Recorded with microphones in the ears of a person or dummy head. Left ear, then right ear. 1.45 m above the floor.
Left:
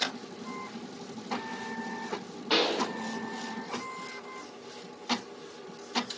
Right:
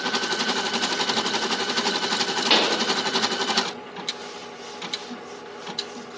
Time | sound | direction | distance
2.5 | a pop | 45° right (ahead or behind) | 1.4 m